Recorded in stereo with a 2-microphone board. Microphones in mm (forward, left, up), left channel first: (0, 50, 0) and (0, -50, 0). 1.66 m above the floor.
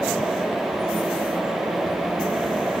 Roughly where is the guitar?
No guitar in this recording.